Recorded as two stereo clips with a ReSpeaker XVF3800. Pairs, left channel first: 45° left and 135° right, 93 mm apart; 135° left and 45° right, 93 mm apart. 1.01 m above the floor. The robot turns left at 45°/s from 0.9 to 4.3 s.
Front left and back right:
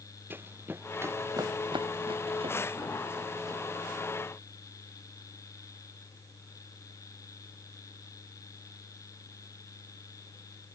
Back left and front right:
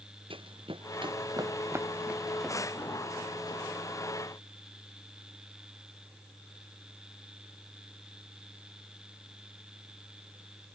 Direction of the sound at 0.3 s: 70° right.